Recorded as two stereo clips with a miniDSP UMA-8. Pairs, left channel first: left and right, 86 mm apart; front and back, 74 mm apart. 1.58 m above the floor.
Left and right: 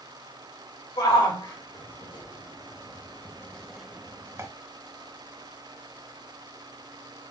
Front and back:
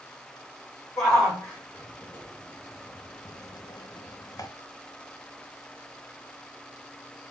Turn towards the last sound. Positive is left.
turn(degrees=-40)